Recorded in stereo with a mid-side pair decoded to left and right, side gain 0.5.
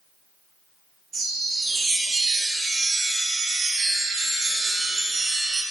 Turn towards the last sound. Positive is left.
turn(degrees=-35)